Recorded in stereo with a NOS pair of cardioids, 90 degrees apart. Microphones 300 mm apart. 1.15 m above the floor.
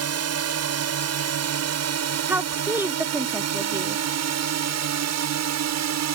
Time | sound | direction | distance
0.0 | a drone | 55° right | ?
2.3 | a woman speaking | 5° right | ?